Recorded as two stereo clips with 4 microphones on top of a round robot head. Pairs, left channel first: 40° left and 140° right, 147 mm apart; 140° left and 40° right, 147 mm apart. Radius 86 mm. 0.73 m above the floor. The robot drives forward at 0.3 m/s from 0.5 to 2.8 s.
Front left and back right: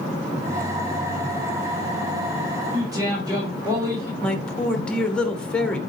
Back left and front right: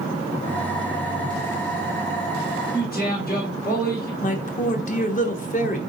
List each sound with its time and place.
2.7 s a man speaking: 155° left, 2.5 m
4.2 s a man speaking: 125° left, 1.1 m